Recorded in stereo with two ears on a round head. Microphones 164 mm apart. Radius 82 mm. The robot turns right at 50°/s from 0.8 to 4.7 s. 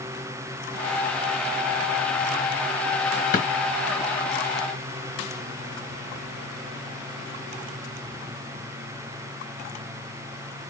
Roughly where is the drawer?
Left.